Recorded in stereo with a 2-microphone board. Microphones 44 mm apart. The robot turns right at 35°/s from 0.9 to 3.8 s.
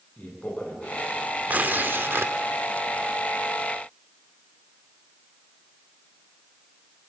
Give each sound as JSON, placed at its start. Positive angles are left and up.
{"t": 0.2, "sound": "a man speaking", "side_deg": 30, "distance_m": 10.0}
{"t": 1.5, "sound": "tearing paper", "azimuth_deg": -140, "distance_m": 1.3}